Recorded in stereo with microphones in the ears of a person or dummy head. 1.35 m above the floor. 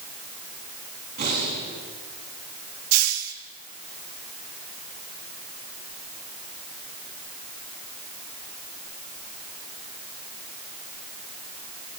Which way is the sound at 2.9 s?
85° right.